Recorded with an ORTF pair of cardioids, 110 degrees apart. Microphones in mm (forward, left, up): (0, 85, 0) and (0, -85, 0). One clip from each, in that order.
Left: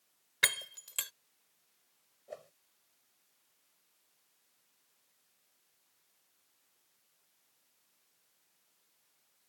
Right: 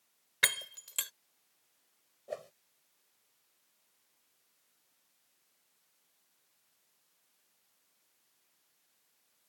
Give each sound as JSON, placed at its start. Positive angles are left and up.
{"t": 0.4, "sound": "breaking glass", "azimuth_deg": -5}
{"t": 2.3, "sound": "a whoosh", "azimuth_deg": -40}